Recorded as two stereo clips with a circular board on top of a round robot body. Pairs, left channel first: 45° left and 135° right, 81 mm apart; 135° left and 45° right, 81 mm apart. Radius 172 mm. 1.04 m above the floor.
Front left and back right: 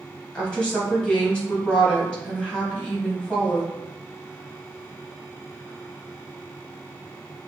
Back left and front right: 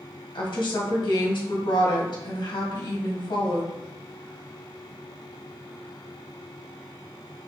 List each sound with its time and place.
0.3 s a woman speaking: 120° left, 2 m